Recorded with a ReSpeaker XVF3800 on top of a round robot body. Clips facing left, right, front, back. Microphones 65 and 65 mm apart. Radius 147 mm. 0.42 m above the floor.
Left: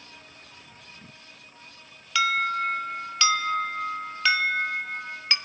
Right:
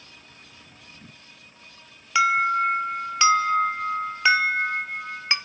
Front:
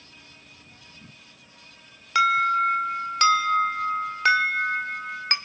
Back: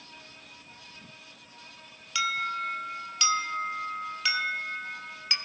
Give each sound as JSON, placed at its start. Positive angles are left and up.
{"t": 2.1, "sound": "an alarm", "azimuth_deg": -25, "distance_m": 2.0}